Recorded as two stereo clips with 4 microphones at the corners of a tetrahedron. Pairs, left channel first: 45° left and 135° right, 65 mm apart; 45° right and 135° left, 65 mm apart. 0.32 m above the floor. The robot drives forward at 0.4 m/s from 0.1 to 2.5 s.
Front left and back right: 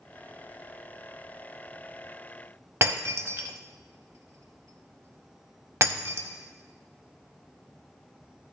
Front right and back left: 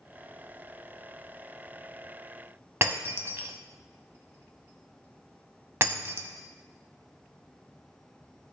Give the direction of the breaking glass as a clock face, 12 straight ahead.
6 o'clock.